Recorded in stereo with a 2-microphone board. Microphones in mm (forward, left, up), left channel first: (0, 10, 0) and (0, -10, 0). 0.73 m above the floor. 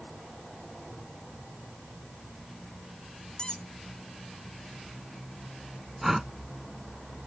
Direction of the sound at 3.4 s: 35° left (ahead or behind).